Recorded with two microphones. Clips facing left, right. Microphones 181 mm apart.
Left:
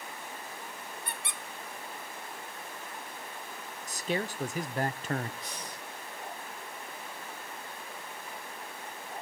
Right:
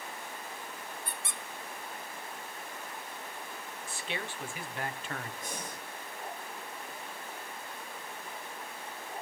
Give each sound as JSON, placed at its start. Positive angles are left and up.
{"t": 1.1, "sound": "a squeak", "side_deg": 65, "distance_m": 1.2}
{"t": 3.9, "sound": "a man speaking", "side_deg": 40, "distance_m": 1.0}
{"t": 5.4, "sound": "breathing", "side_deg": -50, "distance_m": 2.0}